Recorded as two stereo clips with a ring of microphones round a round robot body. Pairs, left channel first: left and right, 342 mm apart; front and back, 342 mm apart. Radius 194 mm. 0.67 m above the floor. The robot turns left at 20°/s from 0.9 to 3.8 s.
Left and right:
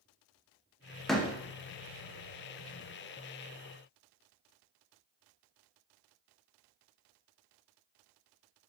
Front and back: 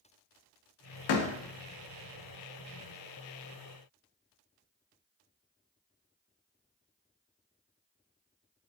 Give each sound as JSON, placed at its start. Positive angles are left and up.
{"t": 1.1, "sound": "a door slam", "azimuth_deg": 0, "distance_m": 0.6}